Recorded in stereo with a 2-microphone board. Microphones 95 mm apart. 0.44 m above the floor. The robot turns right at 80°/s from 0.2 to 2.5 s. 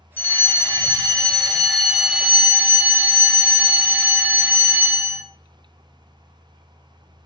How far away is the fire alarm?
About 1.7 m.